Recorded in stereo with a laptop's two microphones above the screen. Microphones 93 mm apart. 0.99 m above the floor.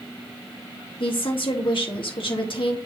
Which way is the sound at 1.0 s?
65° left (ahead or behind).